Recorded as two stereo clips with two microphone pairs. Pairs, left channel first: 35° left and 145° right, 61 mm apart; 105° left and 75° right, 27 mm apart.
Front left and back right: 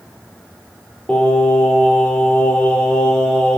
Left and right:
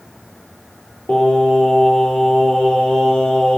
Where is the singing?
115° left, 1.7 m.